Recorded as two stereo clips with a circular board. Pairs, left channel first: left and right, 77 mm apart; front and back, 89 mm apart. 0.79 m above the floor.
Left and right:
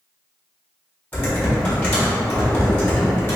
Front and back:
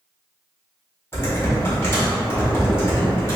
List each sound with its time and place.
1.1 s typing on a keyboard: 40° left, 1.2 m